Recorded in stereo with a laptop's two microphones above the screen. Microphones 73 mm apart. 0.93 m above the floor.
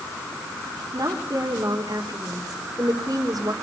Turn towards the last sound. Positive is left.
turn(degrees=-55)  # may be behind; listen again after turning